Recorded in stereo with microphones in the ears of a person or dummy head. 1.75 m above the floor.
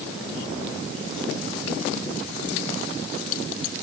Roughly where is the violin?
I don't hear a violin.